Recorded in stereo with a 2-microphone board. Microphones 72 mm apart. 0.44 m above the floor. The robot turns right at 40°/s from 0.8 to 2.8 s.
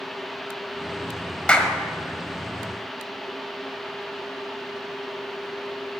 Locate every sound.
1.5 s a clap: 15° left (ahead or behind), 1.5 m; by 1.8 s 5° left (ahead or behind), 1.5 m